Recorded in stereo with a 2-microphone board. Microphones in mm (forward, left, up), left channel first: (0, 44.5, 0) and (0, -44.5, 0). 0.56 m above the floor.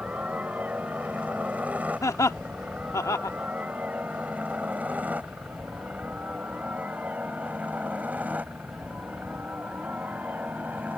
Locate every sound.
0.0 s a helicopter: 15° right (ahead or behind); by 11.0 s 20° right (ahead or behind)
2.0 s laughter: 35° left (ahead or behind)